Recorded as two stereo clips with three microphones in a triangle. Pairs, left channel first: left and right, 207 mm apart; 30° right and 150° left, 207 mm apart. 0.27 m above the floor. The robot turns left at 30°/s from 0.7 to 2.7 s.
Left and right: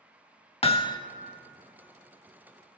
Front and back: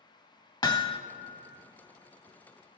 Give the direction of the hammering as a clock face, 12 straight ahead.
11 o'clock.